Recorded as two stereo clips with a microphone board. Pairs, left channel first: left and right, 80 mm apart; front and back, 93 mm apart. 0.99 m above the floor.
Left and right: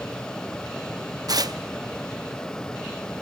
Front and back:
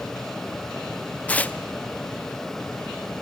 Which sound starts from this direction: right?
Tearing paper, at 1.3 s.